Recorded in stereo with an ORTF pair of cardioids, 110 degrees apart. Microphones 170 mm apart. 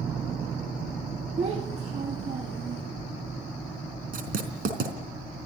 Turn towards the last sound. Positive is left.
turn(degrees=-60)